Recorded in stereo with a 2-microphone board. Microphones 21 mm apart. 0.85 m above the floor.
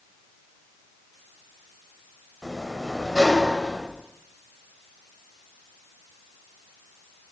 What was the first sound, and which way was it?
A sliding door, centre (ahead or behind).